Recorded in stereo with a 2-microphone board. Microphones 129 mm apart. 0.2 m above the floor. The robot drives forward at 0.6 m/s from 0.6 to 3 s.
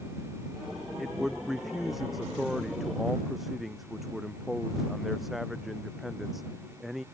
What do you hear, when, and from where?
1.0 s a man speaking: centre (ahead or behind)